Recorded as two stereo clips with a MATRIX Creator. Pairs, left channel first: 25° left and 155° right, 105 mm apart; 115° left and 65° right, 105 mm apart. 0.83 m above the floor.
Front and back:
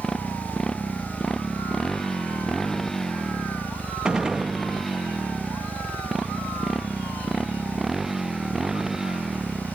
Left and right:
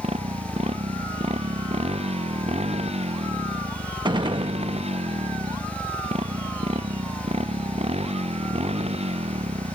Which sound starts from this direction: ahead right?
A motorcycle, at 0.0 s.